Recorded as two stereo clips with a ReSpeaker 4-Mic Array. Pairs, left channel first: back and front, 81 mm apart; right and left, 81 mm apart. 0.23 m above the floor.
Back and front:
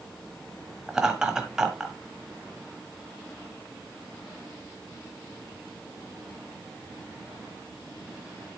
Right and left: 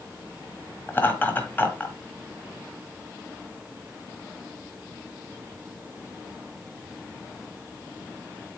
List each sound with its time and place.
0.9 s laughter: 70° right, 1.3 m